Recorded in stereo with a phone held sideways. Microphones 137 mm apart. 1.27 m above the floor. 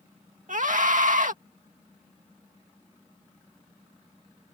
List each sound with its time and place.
0.5 s a scream: 70° right (ahead or behind)